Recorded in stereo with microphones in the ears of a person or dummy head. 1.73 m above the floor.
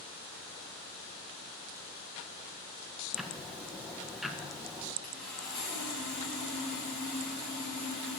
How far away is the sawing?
About 7.5 m.